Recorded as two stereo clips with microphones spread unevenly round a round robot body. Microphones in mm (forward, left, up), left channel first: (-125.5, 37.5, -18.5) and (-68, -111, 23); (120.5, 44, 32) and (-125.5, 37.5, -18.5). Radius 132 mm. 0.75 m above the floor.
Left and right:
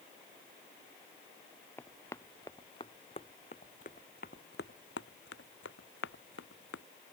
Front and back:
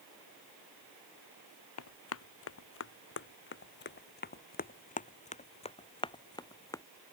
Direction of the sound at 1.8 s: 25° left.